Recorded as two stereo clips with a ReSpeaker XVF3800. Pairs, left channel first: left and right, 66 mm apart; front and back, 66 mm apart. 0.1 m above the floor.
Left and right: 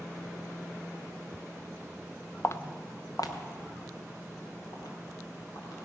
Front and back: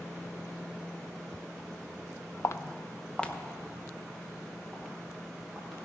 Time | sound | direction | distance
2.4 | footsteps | 35° left | 0.6 m